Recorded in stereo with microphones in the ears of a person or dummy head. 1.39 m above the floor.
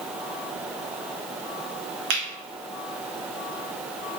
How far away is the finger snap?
About 1.0 m.